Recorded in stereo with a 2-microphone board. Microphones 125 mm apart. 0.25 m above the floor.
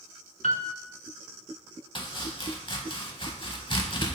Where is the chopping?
40° left (ahead or behind), 0.5 m.